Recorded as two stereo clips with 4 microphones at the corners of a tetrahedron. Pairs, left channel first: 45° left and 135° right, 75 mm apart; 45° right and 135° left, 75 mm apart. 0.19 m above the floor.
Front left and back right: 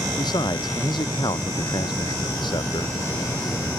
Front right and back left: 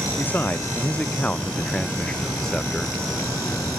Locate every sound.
0.2 s a man speaking: 20° left; by 3.0 s 40° left